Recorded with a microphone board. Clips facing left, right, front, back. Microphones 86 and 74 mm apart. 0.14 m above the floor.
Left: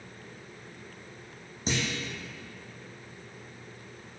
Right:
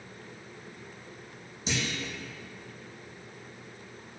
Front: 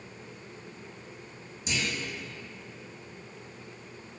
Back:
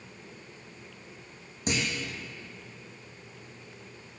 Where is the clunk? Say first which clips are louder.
Left 2 dB, back 2 dB; 140° left, 1.9 m.